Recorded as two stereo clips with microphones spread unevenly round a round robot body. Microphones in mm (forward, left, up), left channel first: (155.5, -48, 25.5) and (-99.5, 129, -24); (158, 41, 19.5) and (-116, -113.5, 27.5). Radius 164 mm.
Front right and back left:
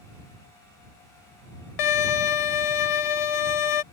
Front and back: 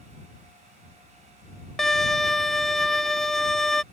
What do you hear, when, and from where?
1.8 s a violin: 60° right